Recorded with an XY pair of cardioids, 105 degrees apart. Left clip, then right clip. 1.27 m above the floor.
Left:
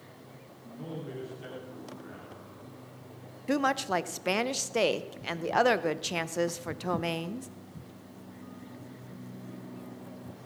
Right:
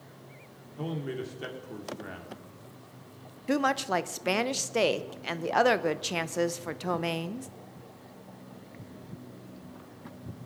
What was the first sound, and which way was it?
A man speaking, 60° right.